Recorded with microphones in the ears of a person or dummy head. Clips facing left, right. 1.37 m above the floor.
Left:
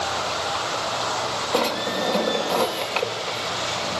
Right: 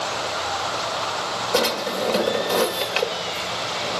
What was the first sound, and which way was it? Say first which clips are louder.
A drawer: right 1 dB; 10° right (ahead or behind).